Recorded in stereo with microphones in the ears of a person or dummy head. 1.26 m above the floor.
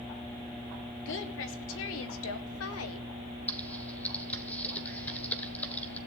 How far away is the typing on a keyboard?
About 1.6 m.